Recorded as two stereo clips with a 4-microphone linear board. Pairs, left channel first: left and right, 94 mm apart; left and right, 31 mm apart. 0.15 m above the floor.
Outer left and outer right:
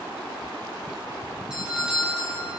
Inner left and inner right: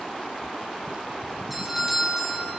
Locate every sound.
1.5 s a doorbell: 5° right (ahead or behind), 3 m